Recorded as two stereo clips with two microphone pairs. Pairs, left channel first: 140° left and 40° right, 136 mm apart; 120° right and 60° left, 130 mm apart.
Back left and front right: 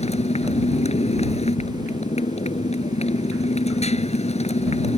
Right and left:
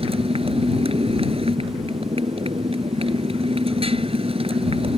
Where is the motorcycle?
100° left.